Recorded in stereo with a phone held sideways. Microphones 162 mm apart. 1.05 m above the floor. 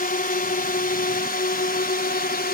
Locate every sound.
0.0 s a drone: 65° left (ahead or behind); by 2.5 s 70° left (ahead or behind)